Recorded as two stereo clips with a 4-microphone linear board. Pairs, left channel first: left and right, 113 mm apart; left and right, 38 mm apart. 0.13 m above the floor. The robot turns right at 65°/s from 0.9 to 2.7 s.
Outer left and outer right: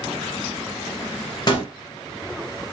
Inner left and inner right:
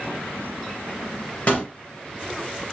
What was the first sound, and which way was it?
A gunshot, 35° left (ahead or behind).